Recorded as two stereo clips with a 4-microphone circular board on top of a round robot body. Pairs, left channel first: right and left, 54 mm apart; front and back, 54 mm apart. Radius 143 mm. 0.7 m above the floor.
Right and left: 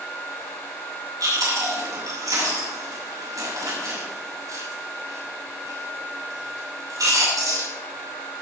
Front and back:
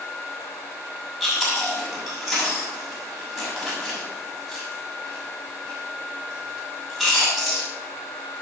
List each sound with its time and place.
1.2 s chewing: 95° left, 6.5 m